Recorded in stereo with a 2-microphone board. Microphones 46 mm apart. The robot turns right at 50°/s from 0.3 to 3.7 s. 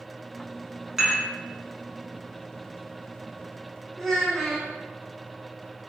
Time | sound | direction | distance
1.0 | dishes clattering | 10° right (ahead or behind) | 0.9 m
4.0 | a child speaking | 5° left (ahead or behind) | 0.6 m